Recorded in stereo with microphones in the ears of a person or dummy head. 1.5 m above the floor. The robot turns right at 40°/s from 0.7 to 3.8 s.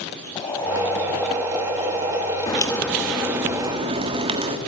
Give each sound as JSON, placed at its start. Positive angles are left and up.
{"t": 0.3, "sound": "boiling", "azimuth_deg": 165, "distance_m": 4.5}
{"t": 2.5, "sound": "a crack", "azimuth_deg": 160, "distance_m": 1.6}